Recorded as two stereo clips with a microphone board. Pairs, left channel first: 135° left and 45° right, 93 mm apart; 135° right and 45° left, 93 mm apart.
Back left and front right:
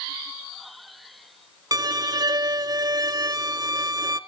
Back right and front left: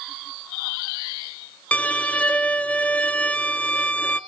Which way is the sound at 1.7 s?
65° right.